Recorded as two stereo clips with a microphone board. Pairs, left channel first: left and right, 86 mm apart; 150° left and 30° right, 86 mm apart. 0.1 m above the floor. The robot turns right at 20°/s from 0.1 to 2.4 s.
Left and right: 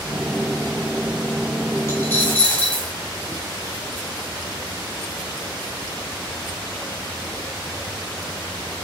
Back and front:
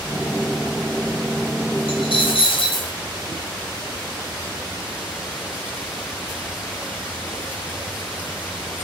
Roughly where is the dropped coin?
Behind left.